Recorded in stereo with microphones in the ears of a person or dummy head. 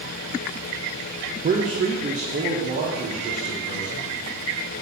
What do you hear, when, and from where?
1.4 s a man speaking: 30° right (ahead or behind), 0.5 m; by 4.1 s 40° right (ahead or behind), 1.9 m